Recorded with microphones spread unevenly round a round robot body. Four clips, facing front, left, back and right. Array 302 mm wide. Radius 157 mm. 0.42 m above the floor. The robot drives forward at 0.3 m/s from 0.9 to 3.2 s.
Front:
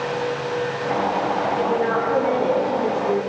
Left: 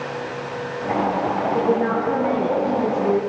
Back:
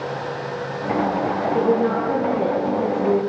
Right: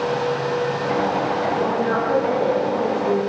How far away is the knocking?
No knocking in this recording.